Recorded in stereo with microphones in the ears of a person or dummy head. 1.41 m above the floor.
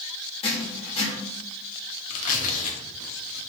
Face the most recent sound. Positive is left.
turn(degrees=45)  # may be behind; listen again after turning